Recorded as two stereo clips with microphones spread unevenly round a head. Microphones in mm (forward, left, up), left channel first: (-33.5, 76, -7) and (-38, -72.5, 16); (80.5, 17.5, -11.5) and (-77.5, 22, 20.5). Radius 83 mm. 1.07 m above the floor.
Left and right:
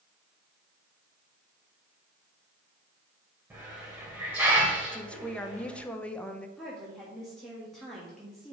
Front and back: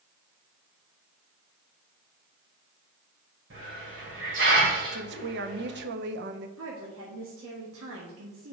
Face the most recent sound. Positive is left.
turn(degrees=175)